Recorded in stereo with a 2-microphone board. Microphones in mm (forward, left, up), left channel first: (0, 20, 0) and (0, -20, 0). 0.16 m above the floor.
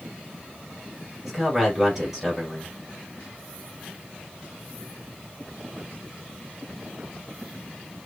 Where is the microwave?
I don't hear a microwave.